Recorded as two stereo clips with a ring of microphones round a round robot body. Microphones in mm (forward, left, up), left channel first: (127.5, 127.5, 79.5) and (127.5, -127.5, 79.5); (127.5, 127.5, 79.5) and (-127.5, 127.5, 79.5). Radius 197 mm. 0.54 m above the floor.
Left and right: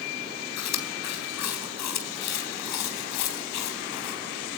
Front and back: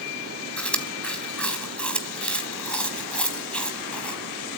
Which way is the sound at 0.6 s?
85° left.